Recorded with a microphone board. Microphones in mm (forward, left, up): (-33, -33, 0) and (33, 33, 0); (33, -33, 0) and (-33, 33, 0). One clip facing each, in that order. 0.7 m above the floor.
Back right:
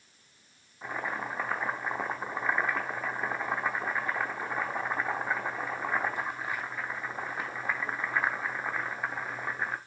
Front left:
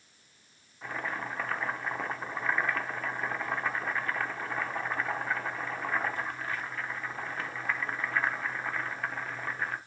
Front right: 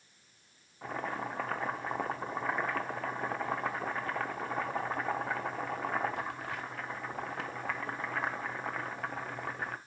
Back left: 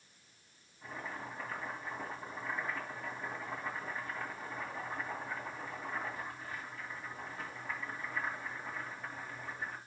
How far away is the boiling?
About 0.8 m.